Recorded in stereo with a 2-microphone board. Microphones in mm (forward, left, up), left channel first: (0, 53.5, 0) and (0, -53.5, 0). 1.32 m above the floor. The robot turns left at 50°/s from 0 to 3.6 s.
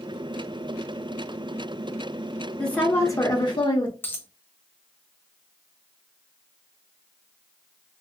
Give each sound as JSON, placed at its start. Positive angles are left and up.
{"t": 2.6, "sound": "a woman speaking", "azimuth_deg": 175, "distance_m": 0.8}
{"t": 4.0, "sound": "a dropped coin", "side_deg": 20, "distance_m": 0.6}